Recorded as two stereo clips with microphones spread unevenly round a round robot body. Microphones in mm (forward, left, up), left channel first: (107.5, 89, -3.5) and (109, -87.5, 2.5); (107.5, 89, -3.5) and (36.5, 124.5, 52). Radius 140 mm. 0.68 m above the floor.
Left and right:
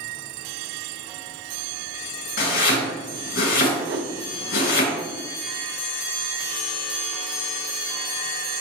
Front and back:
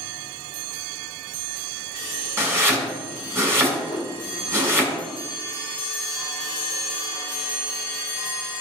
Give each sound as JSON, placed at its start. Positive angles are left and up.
{"t": 2.4, "sound": "chopping", "azimuth_deg": 95, "distance_m": 3.5}
{"t": 3.8, "sound": "a whoosh", "azimuth_deg": -105, "distance_m": 0.7}